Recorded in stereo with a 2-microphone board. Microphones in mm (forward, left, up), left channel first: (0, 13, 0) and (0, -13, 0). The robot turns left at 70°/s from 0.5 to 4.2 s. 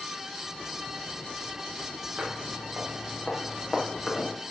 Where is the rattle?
No rattle in this recording.